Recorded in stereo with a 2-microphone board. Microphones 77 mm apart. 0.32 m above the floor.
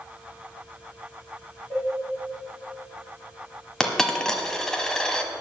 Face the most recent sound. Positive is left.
turn(degrees=10)  # may be behind; listen again after turning